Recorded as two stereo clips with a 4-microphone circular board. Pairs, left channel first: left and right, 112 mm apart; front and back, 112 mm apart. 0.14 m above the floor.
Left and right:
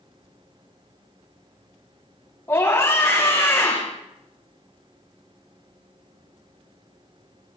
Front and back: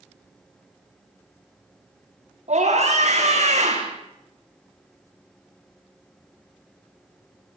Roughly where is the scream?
Behind.